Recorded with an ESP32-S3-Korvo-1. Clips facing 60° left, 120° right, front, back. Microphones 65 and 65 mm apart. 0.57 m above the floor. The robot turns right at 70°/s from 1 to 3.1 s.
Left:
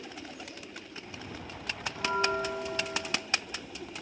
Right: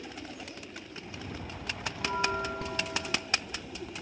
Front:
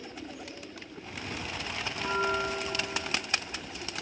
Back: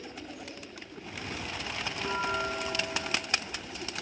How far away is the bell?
About 0.9 m.